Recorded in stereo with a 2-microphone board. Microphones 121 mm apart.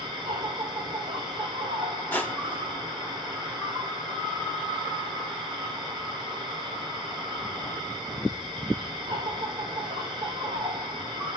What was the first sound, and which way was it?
An insect, 35° right (ahead or behind).